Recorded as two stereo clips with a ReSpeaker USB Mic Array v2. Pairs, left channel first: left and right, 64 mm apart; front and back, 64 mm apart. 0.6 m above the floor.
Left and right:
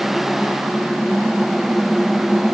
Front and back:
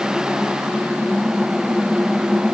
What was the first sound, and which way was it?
Only background noise.